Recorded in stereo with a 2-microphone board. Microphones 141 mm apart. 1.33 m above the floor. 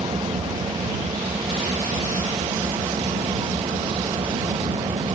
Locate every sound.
0.0 s an engine running: 35° right (ahead or behind)